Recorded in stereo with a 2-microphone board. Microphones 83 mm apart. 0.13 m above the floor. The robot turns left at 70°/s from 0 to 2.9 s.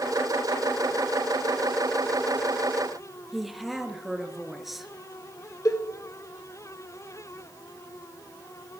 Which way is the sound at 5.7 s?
40° left (ahead or behind).